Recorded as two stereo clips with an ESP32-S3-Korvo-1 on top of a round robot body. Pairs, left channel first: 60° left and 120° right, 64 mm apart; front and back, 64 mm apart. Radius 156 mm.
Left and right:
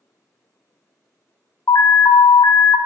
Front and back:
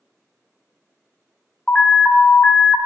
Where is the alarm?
70° left, 0.5 m.